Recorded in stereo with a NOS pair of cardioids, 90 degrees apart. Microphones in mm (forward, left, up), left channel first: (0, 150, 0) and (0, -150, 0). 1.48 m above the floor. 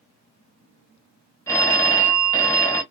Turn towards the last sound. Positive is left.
turn(degrees=10)